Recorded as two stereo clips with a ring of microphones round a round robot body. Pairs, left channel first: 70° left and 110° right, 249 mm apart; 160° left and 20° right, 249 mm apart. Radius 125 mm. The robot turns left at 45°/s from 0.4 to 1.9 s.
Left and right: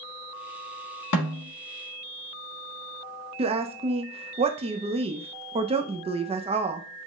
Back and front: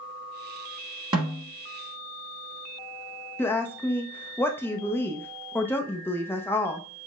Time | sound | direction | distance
1.1 | a snare drum | 50° left | 1.9 m
3.4 | a woman speaking | 135° right | 0.6 m